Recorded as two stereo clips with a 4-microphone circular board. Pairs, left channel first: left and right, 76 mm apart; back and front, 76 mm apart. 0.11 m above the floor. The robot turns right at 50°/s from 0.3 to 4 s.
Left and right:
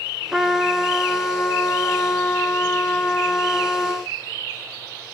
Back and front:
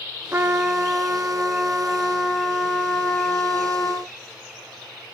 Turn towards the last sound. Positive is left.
turn(degrees=175)